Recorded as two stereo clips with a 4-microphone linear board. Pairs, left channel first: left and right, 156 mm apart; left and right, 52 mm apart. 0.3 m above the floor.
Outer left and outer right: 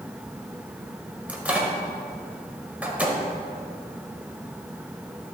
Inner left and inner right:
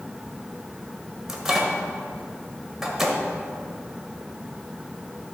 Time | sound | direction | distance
1.3 | a microwave | 10° right (ahead or behind) | 1.1 m